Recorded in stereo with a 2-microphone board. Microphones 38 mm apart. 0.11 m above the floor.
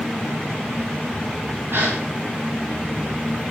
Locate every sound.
1.7 s a gasp: 85° right, 8 m